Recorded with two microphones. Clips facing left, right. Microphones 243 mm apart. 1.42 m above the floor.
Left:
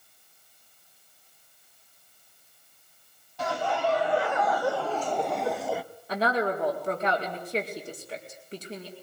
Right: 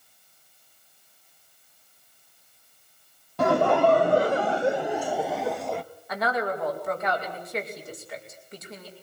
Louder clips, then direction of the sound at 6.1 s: Left 1 dB; 30° left (ahead or behind).